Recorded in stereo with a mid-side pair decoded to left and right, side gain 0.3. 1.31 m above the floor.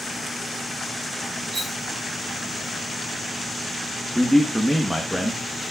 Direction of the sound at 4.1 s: 5° right.